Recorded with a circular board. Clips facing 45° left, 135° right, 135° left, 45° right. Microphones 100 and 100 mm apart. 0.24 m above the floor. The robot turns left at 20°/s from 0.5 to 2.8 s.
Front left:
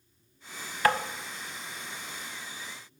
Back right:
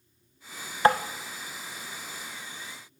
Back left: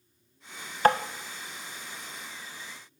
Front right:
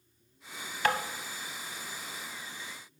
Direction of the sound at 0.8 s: 170° left.